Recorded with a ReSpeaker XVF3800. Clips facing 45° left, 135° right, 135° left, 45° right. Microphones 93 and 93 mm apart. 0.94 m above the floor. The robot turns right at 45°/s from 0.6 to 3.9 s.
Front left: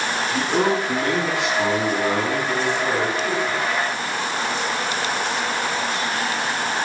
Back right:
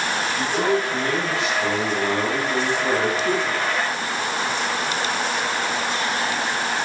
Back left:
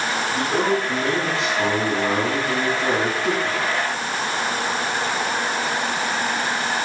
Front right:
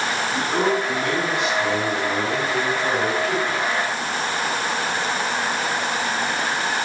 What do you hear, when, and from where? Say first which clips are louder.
0.3 s a man speaking: front left 2 dB, even; 40° left, 7 m; by 3.6 s 175° left, 7 m